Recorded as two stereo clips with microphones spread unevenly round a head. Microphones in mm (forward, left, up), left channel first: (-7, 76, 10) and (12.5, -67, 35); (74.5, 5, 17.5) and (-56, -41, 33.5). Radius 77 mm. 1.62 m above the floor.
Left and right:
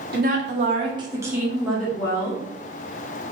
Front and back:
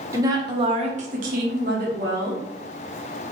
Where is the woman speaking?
95° right, 0.8 m; by 2.4 s 170° left, 1.0 m.